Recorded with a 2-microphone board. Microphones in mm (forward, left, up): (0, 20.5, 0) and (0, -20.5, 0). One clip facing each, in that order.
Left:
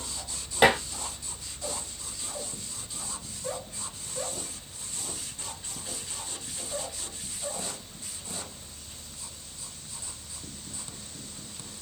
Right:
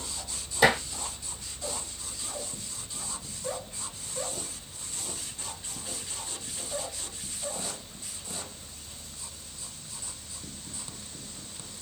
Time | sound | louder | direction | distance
0.6 | dishes clattering | left 1 dB | 55° left (ahead or behind) | 1.9 m